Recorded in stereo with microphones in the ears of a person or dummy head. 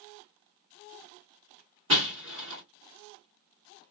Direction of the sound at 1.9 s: 25° right (ahead or behind).